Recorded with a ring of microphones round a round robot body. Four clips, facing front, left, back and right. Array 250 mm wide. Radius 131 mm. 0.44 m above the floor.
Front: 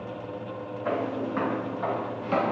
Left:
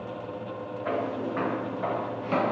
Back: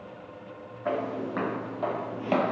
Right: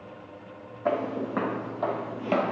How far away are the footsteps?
About 1.6 m.